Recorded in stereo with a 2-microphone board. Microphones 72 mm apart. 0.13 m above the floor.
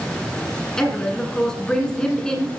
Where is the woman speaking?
10° left (ahead or behind), 1.3 m.